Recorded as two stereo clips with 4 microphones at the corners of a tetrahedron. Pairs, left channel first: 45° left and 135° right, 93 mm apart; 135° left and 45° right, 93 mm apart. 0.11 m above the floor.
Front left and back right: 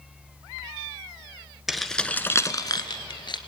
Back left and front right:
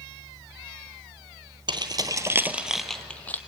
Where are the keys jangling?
45° right, 1.3 m; by 3.4 s 65° left, 1.6 m.